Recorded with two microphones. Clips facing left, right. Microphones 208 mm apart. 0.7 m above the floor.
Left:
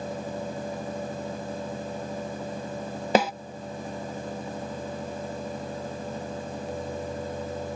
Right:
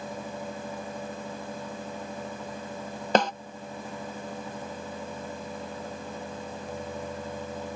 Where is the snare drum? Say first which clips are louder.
Left 1 dB; 10° left (ahead or behind).